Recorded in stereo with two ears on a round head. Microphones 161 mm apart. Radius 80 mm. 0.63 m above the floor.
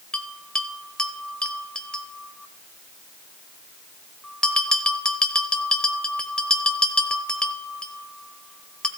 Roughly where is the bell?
Centre.